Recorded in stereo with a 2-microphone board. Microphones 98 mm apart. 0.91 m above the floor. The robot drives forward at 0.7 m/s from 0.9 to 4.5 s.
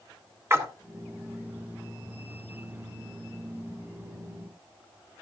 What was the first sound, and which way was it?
A splash, 25° right (ahead or behind).